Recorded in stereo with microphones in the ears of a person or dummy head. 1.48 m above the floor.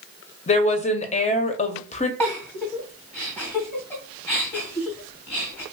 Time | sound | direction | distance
0.5 | a woman speaking | 40° left (ahead or behind) | 0.7 m
2.2 | a giggle | 15° left (ahead or behind) | 1.8 m